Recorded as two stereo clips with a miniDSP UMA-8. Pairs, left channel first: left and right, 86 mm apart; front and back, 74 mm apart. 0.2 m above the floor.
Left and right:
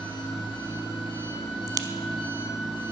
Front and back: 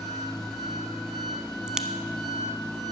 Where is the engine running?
85° left, 4.5 m.